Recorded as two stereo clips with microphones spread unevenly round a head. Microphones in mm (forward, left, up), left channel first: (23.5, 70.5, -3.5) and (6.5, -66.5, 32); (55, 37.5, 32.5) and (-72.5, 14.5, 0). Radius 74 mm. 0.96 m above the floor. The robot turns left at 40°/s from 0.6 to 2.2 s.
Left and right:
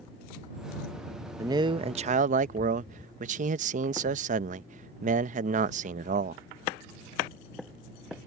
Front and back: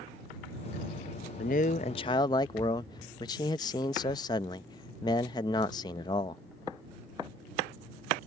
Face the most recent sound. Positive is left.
turn(degrees=-55)